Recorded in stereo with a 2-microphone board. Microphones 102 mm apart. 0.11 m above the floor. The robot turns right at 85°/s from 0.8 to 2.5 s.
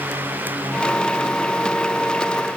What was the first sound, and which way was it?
Only background noise.